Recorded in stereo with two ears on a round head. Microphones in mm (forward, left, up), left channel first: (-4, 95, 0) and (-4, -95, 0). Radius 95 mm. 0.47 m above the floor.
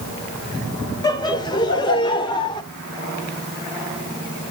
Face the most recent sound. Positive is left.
turn(degrees=20)  # may be behind; listen again after turning